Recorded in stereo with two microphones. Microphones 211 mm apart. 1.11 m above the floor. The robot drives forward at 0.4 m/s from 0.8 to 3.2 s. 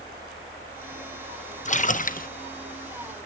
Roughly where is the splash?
Left.